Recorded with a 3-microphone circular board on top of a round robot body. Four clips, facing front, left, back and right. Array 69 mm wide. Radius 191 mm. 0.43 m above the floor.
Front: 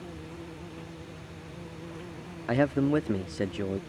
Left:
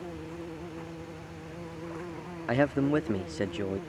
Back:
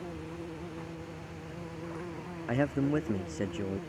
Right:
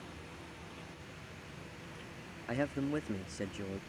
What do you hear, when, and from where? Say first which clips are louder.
0.0 s an insect: left 10 dB, back 2 dB; 115° left
2.5 s a man speaking: left 9 dB, front 4 dB; 70° left